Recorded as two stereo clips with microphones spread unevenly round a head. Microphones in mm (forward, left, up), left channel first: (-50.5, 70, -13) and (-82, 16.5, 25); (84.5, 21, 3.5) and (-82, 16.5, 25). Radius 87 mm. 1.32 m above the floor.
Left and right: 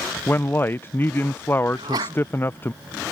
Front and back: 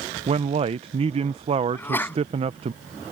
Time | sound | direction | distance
0.3 | a man speaking | 125° left | ?
1.7 | a sneeze | 80° right | ?